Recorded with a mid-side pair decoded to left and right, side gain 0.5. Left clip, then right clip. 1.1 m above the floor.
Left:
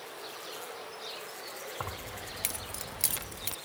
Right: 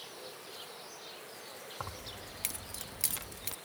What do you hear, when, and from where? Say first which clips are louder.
1.8 s keys jangling: left 2 dB; 25° left